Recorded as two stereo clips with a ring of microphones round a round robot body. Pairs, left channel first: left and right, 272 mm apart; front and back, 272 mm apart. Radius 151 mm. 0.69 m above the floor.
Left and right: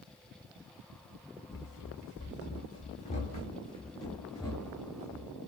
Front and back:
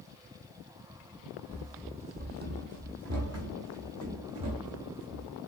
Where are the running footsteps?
100° left, 1.0 m; by 5.3 s 175° left, 2.5 m.